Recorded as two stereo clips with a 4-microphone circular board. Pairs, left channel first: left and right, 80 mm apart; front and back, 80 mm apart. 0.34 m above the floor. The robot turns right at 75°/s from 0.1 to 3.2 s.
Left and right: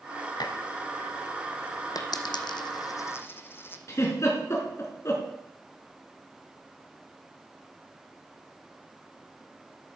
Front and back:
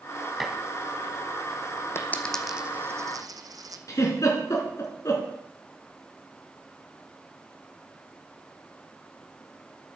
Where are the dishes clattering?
95° left, 1.6 m; by 0.6 s 105° left, 1.6 m.